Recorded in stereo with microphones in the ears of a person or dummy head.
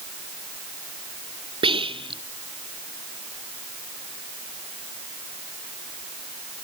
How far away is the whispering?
About 0.8 m.